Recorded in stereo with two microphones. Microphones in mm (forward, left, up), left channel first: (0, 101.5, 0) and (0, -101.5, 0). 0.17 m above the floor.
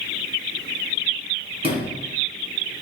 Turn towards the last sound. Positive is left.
turn(degrees=-25)  # may be behind; listen again after turning